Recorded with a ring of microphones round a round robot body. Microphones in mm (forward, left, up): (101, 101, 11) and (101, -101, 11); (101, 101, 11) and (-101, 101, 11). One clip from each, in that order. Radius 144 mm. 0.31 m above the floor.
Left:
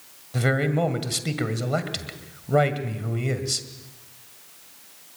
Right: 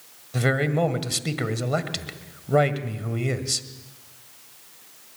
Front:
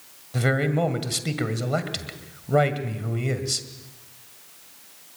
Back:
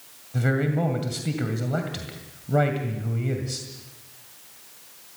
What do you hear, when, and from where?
0.3 s a man speaking: 20° right, 1.9 m